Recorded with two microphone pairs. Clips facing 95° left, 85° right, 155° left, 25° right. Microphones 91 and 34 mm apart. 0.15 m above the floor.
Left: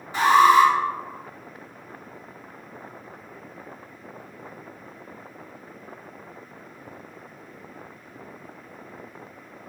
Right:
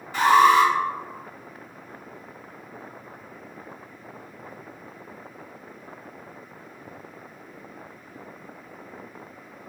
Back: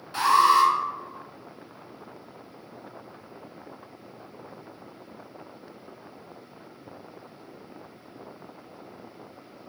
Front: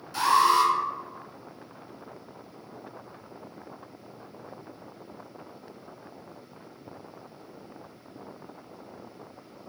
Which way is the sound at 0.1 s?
145° left.